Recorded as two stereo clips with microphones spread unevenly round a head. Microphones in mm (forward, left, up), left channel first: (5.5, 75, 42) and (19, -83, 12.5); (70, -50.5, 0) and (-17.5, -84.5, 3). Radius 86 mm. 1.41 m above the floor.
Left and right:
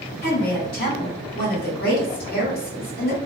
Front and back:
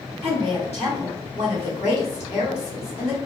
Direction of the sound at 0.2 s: 60° left.